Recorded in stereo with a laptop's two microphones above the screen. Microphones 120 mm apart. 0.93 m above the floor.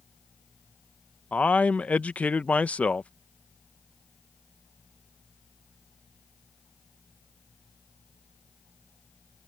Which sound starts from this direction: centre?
A man speaking, at 1.3 s.